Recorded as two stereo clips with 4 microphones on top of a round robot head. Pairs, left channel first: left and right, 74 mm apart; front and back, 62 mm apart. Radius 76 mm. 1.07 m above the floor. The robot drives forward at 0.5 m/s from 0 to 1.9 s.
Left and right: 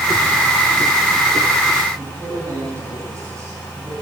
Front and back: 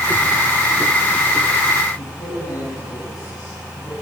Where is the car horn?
I don't hear a car horn.